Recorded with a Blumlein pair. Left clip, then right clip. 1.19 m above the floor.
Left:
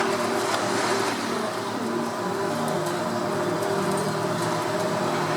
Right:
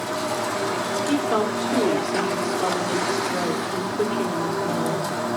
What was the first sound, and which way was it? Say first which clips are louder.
A woman speaking: right 5 dB; 60° right.